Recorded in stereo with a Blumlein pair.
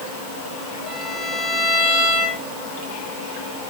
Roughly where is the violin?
Ahead.